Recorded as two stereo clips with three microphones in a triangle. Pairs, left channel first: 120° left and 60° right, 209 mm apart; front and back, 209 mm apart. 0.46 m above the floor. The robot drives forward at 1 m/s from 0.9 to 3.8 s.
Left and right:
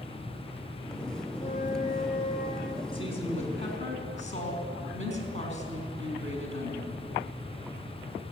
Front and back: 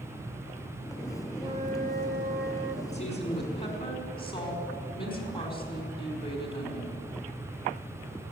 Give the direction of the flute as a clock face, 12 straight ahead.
8 o'clock.